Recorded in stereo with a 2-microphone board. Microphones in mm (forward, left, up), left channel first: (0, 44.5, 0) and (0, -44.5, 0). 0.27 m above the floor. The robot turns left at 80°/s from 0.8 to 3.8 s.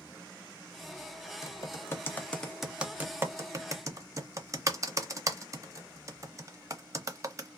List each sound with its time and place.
1.4 s typing on a keyboard: 35° left (ahead or behind), 0.7 m; by 7.5 s 35° right (ahead or behind), 0.7 m